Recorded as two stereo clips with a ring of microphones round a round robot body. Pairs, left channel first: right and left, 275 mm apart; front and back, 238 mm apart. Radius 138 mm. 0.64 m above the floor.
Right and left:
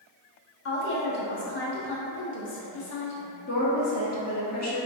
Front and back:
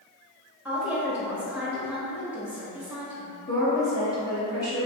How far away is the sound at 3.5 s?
About 1.0 m.